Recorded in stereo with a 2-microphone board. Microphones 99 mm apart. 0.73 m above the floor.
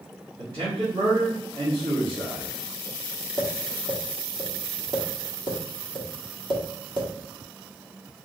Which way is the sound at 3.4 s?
50° right (ahead or behind).